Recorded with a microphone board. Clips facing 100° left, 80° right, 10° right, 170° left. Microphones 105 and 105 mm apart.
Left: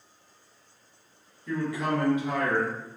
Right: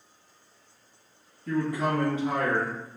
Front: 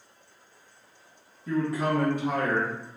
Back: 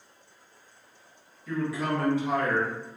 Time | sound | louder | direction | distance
1.5 | a man speaking | right 2 dB, front 3 dB | 55° right | 1.1 m